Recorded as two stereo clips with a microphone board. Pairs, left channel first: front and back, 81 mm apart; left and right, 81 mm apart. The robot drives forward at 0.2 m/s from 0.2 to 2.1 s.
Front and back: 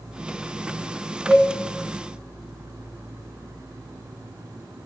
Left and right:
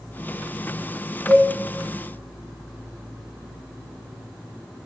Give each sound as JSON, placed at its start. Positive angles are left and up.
{"t": 1.3, "sound": "a cowbell", "azimuth_deg": -45, "distance_m": 3.0}